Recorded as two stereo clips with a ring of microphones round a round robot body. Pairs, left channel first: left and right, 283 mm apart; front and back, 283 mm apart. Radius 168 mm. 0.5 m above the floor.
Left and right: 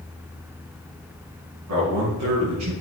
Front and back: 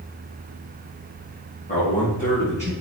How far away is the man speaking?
About 5.5 m.